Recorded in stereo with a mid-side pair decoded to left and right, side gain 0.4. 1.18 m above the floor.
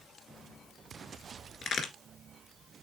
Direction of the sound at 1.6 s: 70° left.